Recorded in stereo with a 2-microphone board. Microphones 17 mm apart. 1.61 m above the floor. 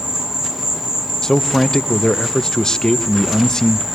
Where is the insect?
25° right (ahead or behind), 2.5 m.